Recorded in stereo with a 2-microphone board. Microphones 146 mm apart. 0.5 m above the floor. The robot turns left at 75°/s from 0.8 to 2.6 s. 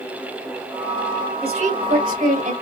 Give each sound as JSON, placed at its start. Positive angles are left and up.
{"t": 1.4, "sound": "a woman speaking", "azimuth_deg": -40, "distance_m": 2.5}